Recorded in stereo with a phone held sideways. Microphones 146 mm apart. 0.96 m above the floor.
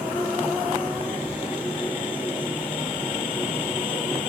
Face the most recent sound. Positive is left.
turn(degrees=-70)  # may be behind; listen again after turning